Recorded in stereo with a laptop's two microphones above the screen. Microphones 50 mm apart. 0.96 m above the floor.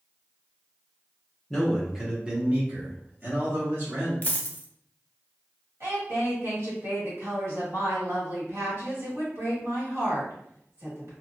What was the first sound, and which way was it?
A man speaking, centre (ahead or behind).